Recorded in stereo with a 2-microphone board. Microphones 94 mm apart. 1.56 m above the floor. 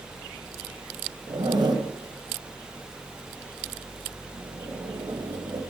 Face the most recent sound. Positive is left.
turn(degrees=-45)  # may be behind; listen again after turning